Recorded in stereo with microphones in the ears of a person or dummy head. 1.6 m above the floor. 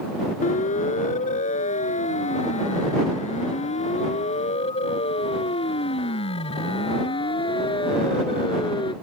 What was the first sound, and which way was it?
A siren, 45° left (ahead or behind).